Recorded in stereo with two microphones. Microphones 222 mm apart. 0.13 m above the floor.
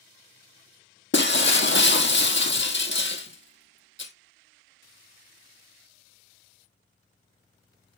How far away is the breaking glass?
About 1.1 m.